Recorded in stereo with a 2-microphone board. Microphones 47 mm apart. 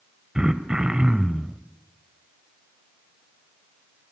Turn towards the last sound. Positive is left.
turn(degrees=-20)  # may be behind; listen again after turning